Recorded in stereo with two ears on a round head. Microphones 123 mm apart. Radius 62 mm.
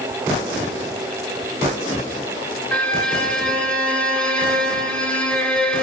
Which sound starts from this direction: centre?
A violin, at 2.7 s.